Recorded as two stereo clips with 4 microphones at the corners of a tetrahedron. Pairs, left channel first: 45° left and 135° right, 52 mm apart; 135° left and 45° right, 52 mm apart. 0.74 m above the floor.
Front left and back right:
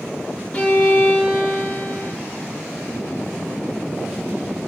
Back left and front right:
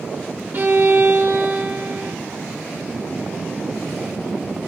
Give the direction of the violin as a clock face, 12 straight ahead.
12 o'clock.